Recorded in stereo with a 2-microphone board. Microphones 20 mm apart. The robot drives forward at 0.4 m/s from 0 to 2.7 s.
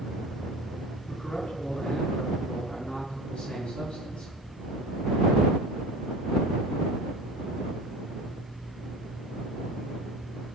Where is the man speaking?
55° left (ahead or behind), 5 m; by 4.3 s 50° left (ahead or behind), 5 m.